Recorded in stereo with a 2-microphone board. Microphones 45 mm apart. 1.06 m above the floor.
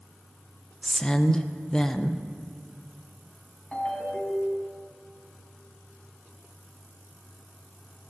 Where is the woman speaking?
15° left (ahead or behind), 0.7 m.